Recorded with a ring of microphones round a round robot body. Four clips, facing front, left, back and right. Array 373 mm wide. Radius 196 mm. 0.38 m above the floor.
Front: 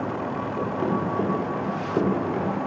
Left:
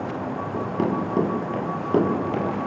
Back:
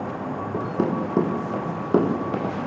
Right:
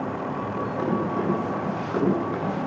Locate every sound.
0.5 s running footsteps: 165° left, 7.5 m; by 2.5 s 155° left, 8 m